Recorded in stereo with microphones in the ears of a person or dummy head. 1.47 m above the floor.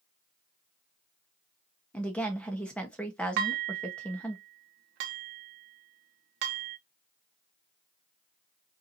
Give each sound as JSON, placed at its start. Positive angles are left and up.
{"t": 1.9, "sound": "a woman speaking", "side_deg": 10, "distance_m": 1.0}
{"t": 3.4, "sound": "dishes clattering", "side_deg": -60, "distance_m": 0.8}